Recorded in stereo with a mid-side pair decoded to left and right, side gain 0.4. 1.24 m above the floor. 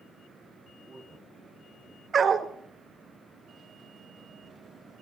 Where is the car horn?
I don't hear a car horn.